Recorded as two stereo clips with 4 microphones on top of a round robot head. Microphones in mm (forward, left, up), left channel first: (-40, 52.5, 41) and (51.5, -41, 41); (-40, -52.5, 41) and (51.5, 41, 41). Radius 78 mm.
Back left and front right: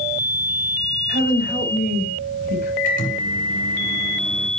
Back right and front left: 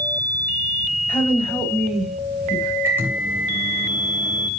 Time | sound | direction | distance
1.1 | a woman speaking | 150° left | 3.5 m
2.8 | a microwave | 120° left | 3 m